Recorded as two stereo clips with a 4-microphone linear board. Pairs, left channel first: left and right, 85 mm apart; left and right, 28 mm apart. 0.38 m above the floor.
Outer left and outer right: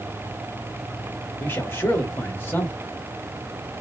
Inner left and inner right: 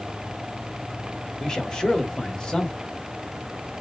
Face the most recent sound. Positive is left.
turn(degrees=30)  # may be behind; listen again after turning